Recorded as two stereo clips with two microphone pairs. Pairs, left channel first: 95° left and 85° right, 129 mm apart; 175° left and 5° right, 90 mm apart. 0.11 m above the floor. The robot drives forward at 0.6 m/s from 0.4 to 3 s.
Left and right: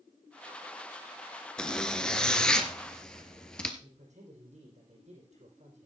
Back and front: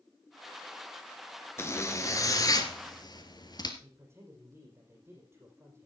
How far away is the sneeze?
No sneeze in this recording.